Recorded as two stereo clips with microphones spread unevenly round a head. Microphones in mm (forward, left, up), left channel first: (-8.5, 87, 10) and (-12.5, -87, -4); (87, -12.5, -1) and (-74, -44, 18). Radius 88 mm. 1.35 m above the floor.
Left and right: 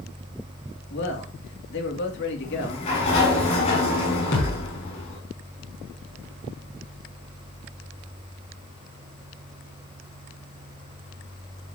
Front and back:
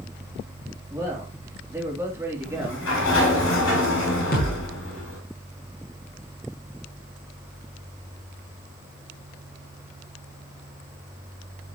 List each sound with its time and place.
0.9 s a man speaking: 115° left, 2.5 m
2.4 s a sliding door: 35° left, 7 m
4.3 s a thud: 55° left, 6 m